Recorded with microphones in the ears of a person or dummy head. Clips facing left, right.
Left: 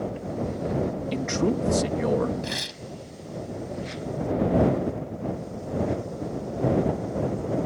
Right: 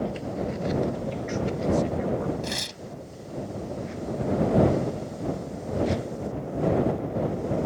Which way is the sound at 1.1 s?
70° left (ahead or behind).